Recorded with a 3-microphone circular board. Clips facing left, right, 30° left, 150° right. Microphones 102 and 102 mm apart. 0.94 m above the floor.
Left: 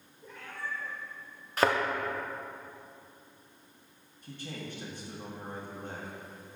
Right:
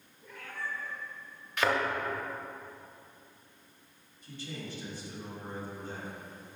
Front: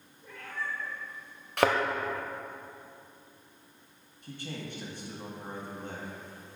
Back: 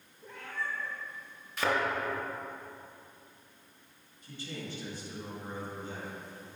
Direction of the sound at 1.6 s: 40° left.